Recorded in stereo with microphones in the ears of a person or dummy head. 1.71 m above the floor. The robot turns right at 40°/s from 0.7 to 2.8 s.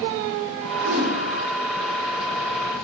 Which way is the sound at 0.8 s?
55° right (ahead or behind).